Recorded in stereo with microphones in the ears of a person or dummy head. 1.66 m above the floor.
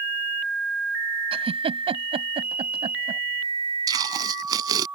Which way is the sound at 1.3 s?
20° right (ahead or behind).